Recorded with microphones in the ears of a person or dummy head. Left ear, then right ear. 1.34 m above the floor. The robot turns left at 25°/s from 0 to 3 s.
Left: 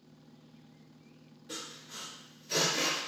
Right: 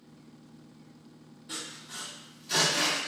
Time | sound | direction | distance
1.5 | sawing | 10° right (ahead or behind) | 1.7 m